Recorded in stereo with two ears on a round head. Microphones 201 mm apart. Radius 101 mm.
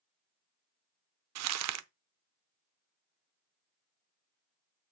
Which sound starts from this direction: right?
Crumpling, at 1.4 s.